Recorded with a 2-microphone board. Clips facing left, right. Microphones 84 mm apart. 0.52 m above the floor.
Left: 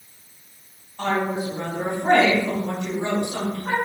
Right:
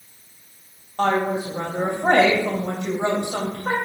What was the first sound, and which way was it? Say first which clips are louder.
A woman speaking: right 3 dB; 65° right (ahead or behind).